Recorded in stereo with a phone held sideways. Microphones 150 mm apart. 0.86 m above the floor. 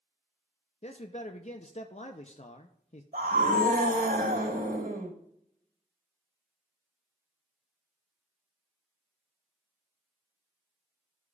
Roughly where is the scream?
Right.